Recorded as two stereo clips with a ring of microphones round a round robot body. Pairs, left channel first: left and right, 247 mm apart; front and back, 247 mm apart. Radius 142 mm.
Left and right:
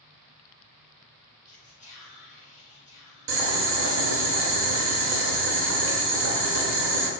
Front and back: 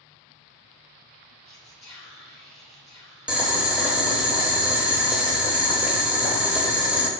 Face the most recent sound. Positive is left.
turn(degrees=-95)